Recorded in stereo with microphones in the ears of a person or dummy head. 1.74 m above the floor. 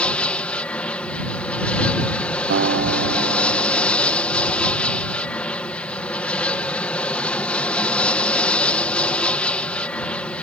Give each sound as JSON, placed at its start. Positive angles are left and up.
{"t": 0.0, "sound": "an aircraft", "side_deg": 10}
{"t": 2.5, "sound": "a guitar", "side_deg": -55}